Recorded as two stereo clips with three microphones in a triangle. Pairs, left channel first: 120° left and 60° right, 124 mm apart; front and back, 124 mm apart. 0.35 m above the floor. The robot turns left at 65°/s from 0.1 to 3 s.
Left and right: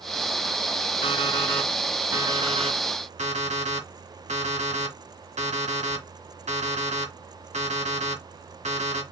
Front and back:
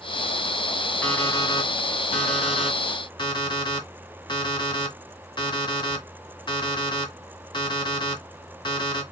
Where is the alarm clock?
80° left, 1.7 m; by 9.0 s 45° right, 1.7 m.